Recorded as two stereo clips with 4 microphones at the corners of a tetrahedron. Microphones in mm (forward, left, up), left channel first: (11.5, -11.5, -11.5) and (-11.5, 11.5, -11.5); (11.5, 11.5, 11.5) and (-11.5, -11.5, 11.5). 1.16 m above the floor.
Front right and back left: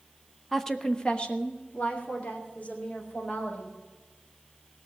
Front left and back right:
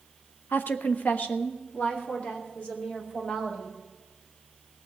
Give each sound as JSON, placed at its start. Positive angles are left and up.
{"t": 0.5, "sound": "a woman speaking", "azimuth_deg": 40, "distance_m": 0.8}